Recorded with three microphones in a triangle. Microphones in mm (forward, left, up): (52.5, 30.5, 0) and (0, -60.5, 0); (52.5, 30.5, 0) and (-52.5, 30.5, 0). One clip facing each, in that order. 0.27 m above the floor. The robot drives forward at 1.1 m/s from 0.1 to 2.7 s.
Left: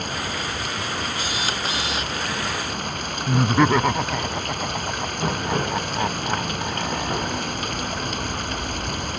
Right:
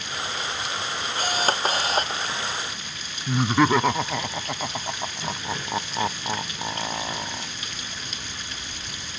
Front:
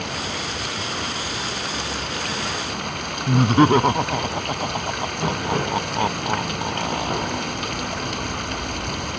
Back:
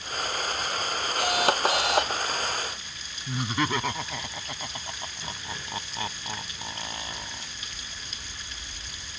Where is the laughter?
30° right.